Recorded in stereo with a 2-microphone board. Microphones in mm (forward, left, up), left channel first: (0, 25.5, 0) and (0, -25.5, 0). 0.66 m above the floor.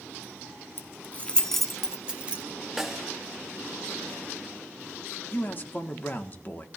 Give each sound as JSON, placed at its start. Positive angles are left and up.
{"t": 0.8, "sound": "keys jangling", "side_deg": 50, "distance_m": 1.0}
{"t": 2.8, "sound": "a snare drum", "side_deg": -10, "distance_m": 1.3}
{"t": 5.3, "sound": "a man speaking", "side_deg": 40, "distance_m": 1.5}